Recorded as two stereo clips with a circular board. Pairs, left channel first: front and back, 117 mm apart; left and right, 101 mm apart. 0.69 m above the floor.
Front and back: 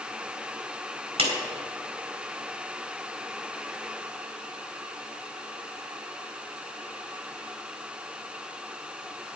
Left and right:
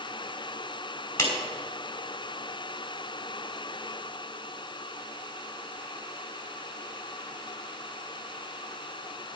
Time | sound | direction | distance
1.2 | a clap | 155° left | 3.5 m